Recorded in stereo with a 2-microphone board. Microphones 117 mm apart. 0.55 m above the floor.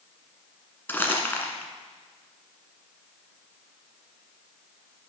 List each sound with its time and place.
0.9 s crumpling: 15° left (ahead or behind), 1.5 m